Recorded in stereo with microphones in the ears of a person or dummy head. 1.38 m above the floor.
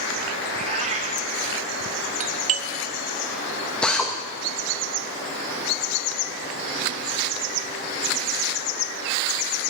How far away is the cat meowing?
About 1.3 m.